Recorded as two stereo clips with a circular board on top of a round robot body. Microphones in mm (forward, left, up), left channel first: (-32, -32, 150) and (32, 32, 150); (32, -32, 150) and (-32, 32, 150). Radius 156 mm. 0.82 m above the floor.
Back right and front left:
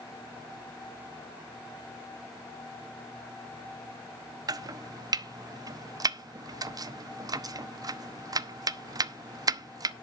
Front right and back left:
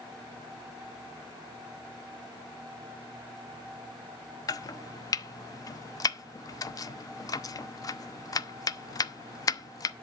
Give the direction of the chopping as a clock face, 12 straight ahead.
12 o'clock.